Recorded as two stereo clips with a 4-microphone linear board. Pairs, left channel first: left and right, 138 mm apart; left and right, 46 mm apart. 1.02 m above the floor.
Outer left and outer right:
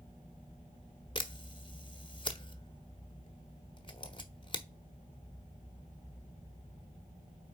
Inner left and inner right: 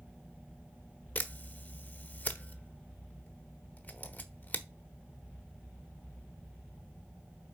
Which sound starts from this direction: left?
A camera shutter, at 1.1 s.